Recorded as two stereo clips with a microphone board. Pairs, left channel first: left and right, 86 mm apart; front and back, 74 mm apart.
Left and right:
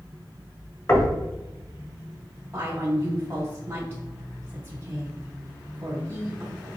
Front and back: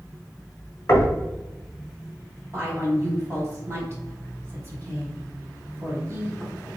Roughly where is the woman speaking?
Behind right.